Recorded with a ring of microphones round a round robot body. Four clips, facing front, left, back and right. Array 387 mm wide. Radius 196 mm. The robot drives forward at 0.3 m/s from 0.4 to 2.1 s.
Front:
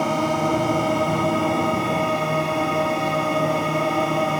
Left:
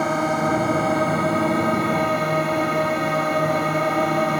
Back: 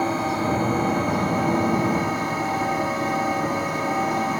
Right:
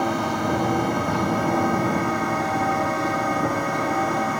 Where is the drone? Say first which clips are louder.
Left 2 dB, front 2 dB; 45° left; by 4.4 s 50° left.